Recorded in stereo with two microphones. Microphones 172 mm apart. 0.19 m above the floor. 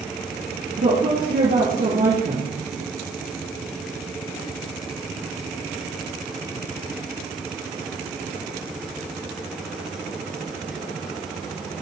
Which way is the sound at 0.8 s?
70° right (ahead or behind).